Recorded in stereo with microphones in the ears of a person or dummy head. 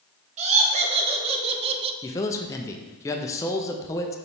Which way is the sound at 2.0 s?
15° left (ahead or behind).